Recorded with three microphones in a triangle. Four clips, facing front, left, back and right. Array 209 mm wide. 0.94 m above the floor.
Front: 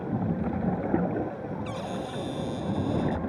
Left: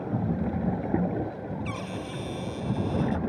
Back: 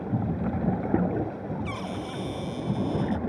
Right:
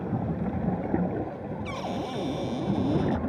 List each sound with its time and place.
1.6 s a cupboard door: 85° right